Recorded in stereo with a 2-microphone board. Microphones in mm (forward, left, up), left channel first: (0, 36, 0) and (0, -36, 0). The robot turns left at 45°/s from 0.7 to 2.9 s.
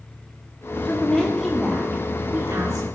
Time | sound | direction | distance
0.8 | a woman speaking | 30° left | 2.0 m